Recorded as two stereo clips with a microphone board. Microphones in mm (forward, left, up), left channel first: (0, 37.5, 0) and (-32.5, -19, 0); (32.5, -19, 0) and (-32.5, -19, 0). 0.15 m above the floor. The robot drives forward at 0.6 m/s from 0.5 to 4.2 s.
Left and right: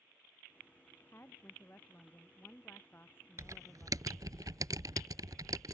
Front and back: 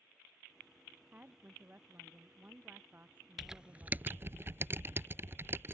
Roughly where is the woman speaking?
Behind left.